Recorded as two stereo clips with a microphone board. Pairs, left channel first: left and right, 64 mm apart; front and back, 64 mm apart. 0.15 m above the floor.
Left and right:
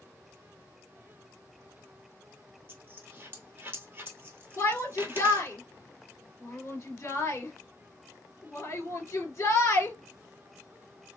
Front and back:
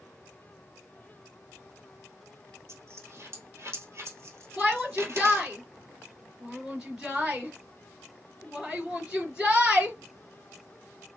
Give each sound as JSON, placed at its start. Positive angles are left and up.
{"t": 2.7, "sound": "a dropped coin", "azimuth_deg": -140, "distance_m": 1.2}
{"t": 4.6, "sound": "a shout", "azimuth_deg": 105, "distance_m": 2.5}